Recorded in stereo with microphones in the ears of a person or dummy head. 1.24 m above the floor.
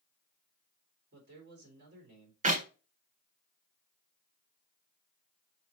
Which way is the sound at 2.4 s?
40° right (ahead or behind).